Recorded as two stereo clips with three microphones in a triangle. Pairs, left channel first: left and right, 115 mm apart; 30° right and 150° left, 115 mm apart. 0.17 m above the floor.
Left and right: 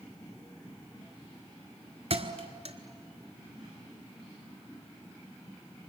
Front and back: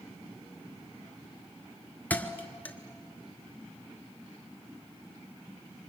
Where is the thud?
105° right, 1.3 m.